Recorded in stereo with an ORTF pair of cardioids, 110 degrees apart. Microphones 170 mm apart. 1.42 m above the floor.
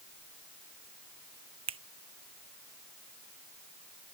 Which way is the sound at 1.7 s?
35° right.